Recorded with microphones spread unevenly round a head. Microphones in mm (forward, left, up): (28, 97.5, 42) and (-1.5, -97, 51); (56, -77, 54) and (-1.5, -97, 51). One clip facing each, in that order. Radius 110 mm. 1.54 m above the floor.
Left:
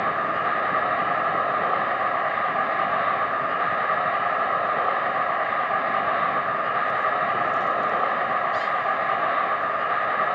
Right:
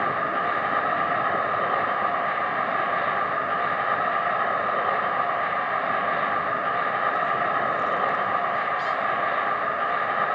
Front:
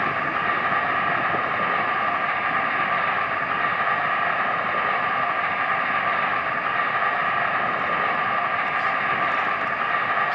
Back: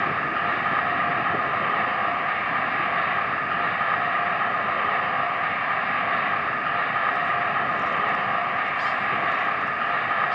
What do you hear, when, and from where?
0.0 s an insect: 20° right, 2.5 m